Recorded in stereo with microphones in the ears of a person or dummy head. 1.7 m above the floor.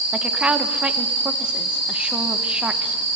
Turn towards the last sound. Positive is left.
turn(degrees=0)  # may be behind; listen again after turning